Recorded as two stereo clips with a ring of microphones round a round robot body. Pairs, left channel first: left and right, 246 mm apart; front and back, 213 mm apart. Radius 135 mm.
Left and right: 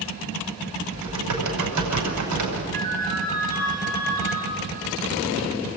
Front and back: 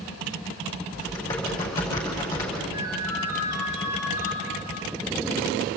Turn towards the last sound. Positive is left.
turn(degrees=-145)